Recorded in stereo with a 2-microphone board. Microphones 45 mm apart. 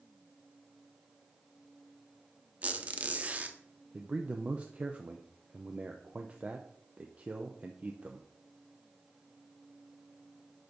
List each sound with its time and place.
2.6 s a squeak: 30° right (ahead or behind), 0.7 m
3.9 s a man speaking: 30° right (ahead or behind), 0.6 m